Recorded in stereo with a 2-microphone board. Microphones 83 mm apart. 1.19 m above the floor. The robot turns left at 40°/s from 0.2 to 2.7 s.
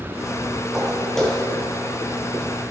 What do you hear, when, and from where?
0.7 s footsteps: 5° right (ahead or behind), 1.4 m; by 1.5 s 15° left (ahead or behind), 1.4 m